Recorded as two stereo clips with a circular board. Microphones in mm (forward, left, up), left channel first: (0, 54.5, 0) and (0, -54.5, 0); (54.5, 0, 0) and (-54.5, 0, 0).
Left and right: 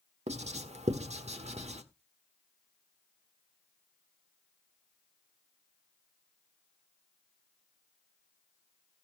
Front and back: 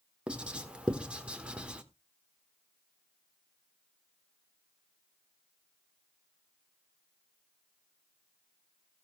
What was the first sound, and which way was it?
Writing, 100° right.